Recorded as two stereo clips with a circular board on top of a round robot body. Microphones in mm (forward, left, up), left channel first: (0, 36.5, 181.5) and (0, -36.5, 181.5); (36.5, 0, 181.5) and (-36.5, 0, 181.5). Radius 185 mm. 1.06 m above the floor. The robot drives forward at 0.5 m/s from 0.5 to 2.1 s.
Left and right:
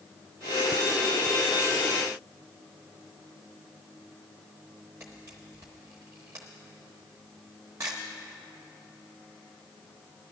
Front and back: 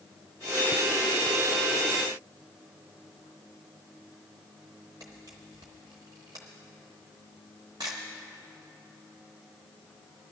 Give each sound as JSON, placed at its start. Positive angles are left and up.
{"t": 5.0, "sound": "a camera shutter", "azimuth_deg": -155, "distance_m": 0.5}